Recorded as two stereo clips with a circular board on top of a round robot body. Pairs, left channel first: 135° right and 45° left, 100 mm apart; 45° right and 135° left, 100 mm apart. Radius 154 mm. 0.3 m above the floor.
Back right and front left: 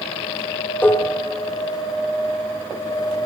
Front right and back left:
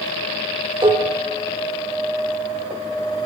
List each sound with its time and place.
0.8 s dishes clattering: 160° left, 1.3 m